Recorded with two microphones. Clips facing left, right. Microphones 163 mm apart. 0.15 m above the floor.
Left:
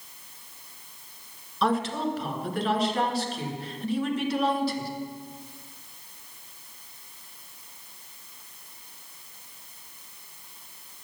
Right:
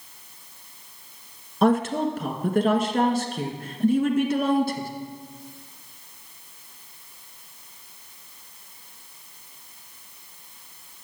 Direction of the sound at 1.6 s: 50° right (ahead or behind).